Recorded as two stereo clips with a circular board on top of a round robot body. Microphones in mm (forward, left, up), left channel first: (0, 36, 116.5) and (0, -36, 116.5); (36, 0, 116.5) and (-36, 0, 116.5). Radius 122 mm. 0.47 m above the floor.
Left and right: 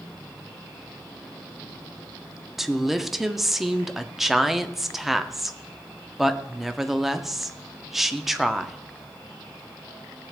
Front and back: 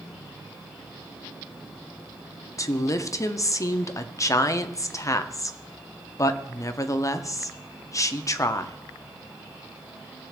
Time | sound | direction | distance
2.6 | a woman speaking | 5° right | 0.9 m